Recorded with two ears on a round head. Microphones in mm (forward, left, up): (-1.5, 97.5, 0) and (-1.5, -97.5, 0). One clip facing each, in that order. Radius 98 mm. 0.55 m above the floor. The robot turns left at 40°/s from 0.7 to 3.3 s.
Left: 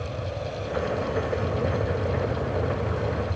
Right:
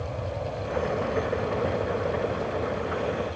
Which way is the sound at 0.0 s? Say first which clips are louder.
Even; 5° left (ahead or behind).